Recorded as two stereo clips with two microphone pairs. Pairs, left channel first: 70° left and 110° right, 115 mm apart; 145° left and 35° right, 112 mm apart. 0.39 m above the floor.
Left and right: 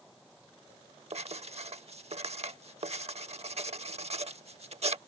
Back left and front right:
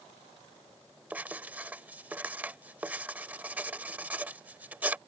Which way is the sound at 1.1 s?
110° right.